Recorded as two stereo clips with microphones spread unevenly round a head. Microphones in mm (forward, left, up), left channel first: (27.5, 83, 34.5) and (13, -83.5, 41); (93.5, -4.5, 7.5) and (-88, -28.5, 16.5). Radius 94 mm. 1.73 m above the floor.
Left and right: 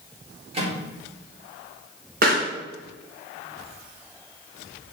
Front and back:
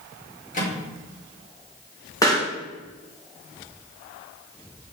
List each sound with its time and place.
0.5 s a microwave: 40° right, 4.5 m
2.2 s a pop: 65° right, 3.5 m